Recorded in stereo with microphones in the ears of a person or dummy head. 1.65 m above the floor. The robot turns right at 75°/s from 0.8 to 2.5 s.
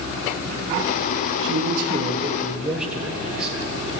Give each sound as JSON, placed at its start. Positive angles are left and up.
{"t": 1.4, "sound": "a man speaking", "azimuth_deg": -85, "distance_m": 1.1}